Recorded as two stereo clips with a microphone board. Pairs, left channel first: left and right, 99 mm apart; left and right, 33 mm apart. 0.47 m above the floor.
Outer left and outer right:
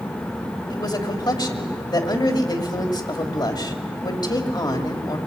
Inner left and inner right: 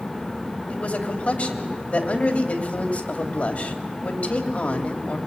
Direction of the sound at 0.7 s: 45° left (ahead or behind).